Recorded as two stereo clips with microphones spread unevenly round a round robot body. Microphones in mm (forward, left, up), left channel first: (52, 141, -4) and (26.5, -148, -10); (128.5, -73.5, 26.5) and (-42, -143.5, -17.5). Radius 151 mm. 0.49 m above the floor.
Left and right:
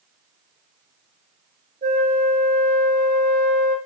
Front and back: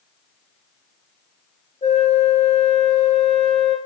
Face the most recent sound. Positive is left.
turn(degrees=-35)